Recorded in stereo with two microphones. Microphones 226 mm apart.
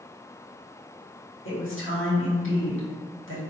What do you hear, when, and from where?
1.4 s a woman speaking: 65° left (ahead or behind), 1.3 m